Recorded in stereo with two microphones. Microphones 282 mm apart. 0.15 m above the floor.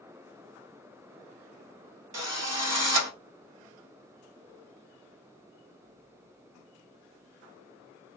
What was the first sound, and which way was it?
A drill, 60° right (ahead or behind).